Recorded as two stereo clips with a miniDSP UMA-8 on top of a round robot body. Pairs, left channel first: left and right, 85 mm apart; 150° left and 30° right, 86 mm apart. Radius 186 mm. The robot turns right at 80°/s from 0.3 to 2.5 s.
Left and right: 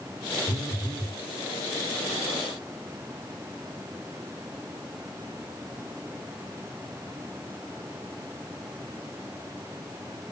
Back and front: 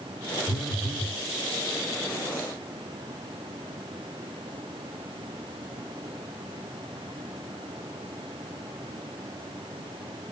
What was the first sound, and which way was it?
A phone buzzing, 130° right.